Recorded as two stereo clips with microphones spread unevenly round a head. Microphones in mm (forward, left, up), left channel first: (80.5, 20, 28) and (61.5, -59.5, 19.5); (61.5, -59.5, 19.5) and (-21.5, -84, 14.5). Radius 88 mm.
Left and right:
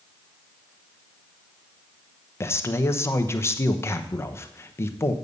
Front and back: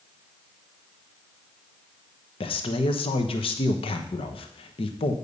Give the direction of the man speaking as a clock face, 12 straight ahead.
11 o'clock.